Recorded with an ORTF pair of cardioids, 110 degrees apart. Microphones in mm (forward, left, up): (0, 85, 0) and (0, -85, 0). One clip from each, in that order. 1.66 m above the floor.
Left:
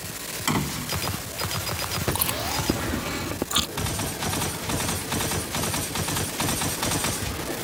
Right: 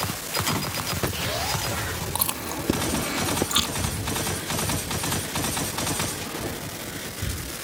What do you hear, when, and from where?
0.5 s a door slam: 25° left
2.1 s chewing: 5° right
3.8 s breathing: 25° right